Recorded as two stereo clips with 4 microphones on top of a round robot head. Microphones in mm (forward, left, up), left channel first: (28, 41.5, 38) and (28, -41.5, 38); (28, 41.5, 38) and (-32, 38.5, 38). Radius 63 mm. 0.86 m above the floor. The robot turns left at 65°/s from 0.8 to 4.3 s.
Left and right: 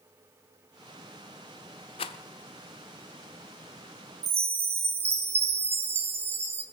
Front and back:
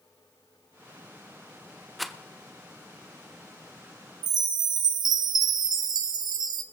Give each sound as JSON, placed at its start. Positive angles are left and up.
{"t": 2.0, "sound": "a rattle", "azimuth_deg": 90, "distance_m": 0.7}
{"t": 4.2, "sound": "a chime", "azimuth_deg": -155, "distance_m": 0.6}